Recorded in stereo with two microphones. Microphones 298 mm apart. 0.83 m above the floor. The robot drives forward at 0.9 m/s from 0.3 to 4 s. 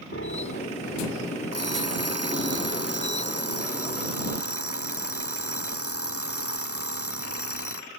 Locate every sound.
0.1 s a piano: 45° left (ahead or behind); by 1.1 s 50° left (ahead or behind)
1.5 s an alarm clock: 60° left (ahead or behind); by 7.9 s 55° left (ahead or behind)